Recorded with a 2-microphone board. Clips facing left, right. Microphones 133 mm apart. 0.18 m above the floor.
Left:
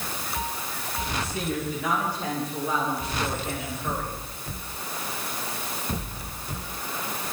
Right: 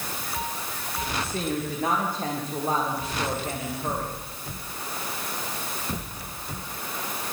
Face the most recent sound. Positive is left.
turn(degrees=-45)  # may be behind; listen again after turning